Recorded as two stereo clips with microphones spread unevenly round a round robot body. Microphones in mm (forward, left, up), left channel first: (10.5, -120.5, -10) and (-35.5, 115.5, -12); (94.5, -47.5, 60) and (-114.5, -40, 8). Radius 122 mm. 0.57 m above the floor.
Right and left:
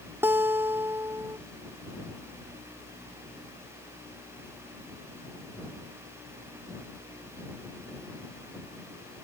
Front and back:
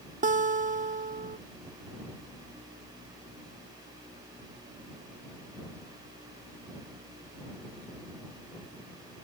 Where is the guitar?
Straight behind.